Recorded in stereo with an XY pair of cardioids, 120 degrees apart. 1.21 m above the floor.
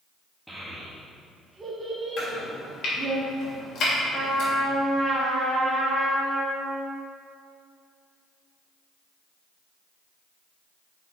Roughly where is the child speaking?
Ahead.